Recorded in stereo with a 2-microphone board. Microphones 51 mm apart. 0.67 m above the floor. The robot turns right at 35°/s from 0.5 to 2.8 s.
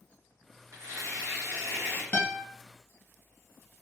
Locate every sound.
0.7 s tearing paper: 100° right, 1.5 m; by 2.0 s 50° right, 1.5 m
2.1 s a guitar: 35° left (ahead or behind), 0.8 m; by 2.4 s 30° left (ahead or behind), 0.8 m